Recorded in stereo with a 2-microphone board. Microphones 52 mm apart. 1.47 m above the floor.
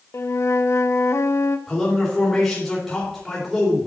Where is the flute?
60° left (ahead or behind), 0.5 m.